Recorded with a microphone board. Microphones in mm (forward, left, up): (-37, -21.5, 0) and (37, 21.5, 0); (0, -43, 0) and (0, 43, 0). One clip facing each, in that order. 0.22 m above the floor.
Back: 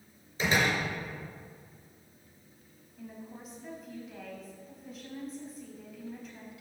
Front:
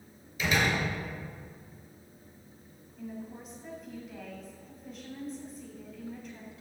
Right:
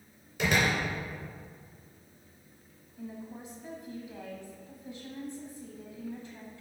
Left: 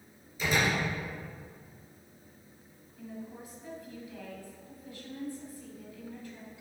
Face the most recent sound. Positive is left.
turn(degrees=-65)